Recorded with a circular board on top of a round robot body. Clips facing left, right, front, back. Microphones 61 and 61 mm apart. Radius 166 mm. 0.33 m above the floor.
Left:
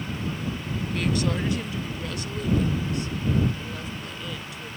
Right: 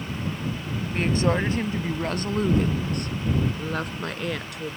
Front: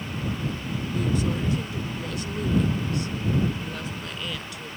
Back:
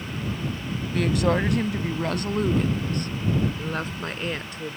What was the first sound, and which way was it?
A woman speaking, 155° right.